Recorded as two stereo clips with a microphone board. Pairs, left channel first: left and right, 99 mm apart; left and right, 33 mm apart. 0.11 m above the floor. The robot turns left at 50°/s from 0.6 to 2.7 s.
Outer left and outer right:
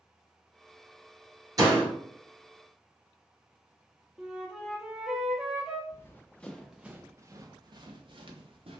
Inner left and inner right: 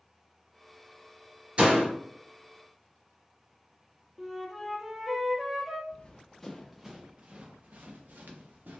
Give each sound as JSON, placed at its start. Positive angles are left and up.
{"t": 1.6, "sound": "a door slam", "side_deg": -40, "distance_m": 1.7}
{"t": 4.2, "sound": "a flute", "side_deg": -5, "distance_m": 0.9}
{"t": 5.9, "sound": "running footsteps", "side_deg": 30, "distance_m": 0.9}